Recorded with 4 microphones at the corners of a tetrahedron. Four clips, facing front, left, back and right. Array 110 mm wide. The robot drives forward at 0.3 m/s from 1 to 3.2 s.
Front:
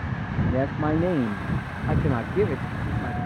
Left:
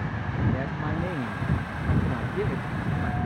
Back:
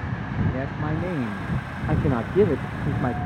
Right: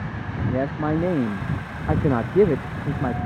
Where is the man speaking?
55° right; by 3.2 s 130° right.